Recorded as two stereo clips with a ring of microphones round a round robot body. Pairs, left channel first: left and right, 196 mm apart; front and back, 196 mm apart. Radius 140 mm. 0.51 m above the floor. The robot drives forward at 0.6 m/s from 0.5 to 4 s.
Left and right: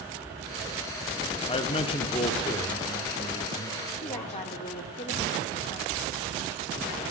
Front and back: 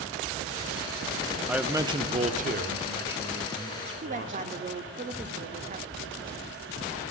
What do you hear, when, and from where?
1.5 s a man speaking: 95° left, 0.8 m; by 4.4 s 170° left, 1.7 m
4.0 s a woman speaking: 140° left, 1.0 m